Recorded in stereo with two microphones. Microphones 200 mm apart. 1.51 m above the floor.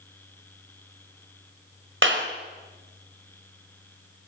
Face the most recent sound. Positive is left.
turn(degrees=-85)